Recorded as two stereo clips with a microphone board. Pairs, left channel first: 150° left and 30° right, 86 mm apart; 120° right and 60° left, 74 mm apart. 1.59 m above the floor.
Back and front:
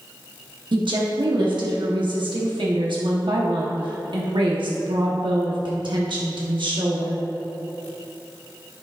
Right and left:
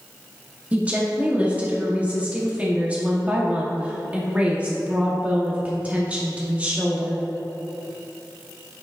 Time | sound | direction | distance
0.7 | a woman speaking | 10° right | 1.2 m